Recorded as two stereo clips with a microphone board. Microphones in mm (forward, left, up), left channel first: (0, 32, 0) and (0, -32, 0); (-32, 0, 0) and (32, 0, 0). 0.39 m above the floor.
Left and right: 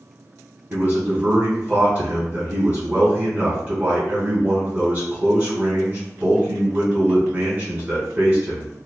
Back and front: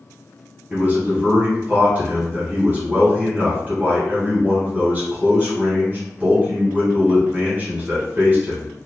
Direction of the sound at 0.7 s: 45° right.